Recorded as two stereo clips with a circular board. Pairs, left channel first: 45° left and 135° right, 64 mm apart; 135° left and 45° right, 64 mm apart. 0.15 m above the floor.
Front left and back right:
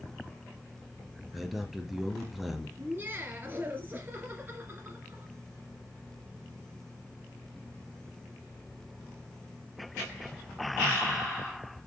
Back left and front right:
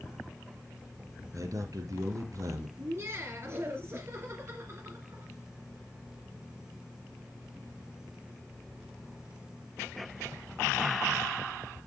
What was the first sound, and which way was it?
A man speaking, 50° right.